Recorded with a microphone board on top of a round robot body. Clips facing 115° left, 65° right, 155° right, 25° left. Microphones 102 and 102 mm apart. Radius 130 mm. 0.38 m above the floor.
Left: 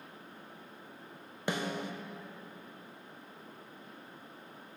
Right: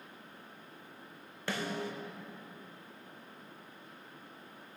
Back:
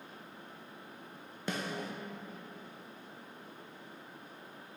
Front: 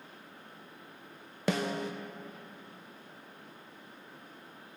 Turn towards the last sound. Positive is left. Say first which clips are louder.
# left 1 dB, front 6 dB
turn(degrees=40)